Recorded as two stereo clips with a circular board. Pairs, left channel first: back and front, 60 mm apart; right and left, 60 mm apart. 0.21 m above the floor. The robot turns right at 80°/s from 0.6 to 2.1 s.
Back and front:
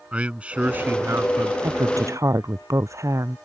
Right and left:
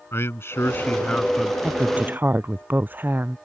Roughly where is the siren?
No siren in this recording.